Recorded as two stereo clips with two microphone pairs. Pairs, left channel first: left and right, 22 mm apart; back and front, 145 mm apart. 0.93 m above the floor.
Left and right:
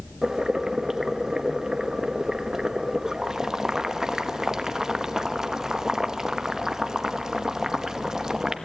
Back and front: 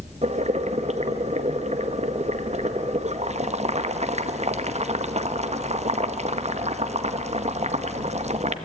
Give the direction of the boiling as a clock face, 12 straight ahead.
1 o'clock.